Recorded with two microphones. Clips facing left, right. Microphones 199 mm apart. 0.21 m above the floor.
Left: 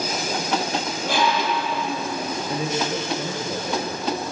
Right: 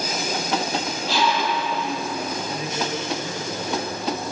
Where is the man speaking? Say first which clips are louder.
Left 3 dB; 30° left (ahead or behind), 4.5 m.